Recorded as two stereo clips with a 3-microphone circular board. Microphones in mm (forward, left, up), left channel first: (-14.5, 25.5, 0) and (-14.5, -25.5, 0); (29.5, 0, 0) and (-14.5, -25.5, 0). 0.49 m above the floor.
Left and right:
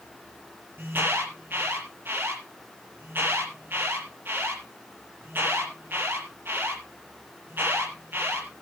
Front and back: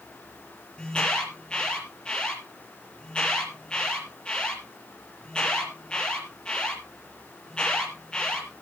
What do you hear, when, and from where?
0.8 s an alarm: 45° right, 6.5 m